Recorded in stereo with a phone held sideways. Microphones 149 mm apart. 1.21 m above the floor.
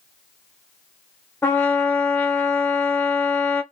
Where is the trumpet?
15° left (ahead or behind), 0.7 m.